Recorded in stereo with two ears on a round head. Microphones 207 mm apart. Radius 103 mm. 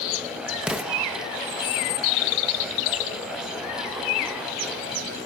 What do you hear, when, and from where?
0.6 s an explosion: 5° right (ahead or behind), 0.7 m